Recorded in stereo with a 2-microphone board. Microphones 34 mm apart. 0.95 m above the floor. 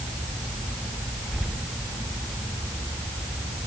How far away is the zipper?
I don't hear a zipper.